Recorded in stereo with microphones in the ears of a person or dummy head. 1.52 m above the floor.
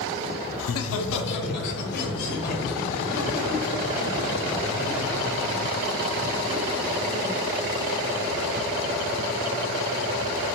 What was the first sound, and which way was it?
Laughter, 80° left.